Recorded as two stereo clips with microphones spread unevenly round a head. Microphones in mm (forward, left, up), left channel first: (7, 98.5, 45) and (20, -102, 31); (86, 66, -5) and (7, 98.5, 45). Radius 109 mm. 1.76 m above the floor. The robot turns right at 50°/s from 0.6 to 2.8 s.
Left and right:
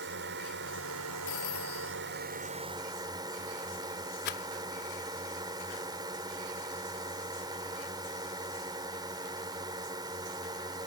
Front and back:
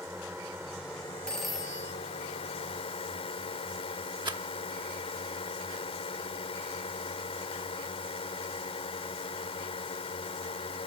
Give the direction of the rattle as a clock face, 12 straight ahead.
7 o'clock.